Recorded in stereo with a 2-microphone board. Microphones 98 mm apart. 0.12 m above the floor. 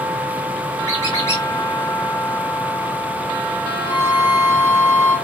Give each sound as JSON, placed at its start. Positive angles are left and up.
{"t": 0.9, "sound": "a squeak", "side_deg": 30, "distance_m": 4.0}
{"t": 3.9, "sound": "a violin", "side_deg": -40, "distance_m": 1.9}